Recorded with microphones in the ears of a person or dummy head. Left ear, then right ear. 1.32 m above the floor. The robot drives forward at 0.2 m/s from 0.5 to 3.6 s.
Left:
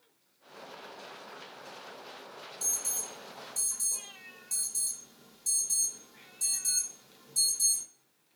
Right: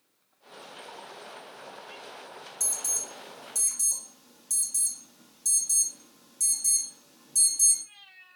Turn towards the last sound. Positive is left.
turn(degrees=-85)